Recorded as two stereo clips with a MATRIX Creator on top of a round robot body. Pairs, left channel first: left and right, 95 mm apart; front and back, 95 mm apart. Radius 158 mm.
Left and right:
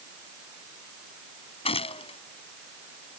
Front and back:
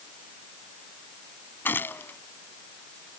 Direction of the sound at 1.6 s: 70° left.